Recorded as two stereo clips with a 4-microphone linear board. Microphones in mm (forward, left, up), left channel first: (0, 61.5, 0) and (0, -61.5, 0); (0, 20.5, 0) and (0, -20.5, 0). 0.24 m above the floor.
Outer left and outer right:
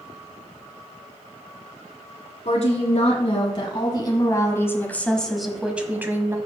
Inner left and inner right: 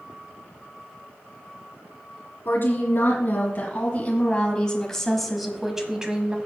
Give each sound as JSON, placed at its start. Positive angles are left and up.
{"t": 2.5, "sound": "a woman speaking", "side_deg": 60, "distance_m": 2.0}